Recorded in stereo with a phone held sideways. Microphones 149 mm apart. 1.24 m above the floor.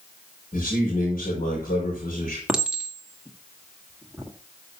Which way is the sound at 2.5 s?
5° right (ahead or behind).